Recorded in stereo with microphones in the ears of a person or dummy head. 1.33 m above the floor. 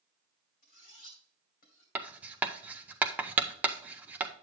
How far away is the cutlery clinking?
About 2.5 m.